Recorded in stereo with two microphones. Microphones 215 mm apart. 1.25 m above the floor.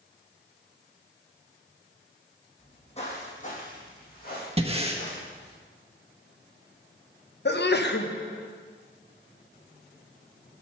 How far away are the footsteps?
About 2.5 m.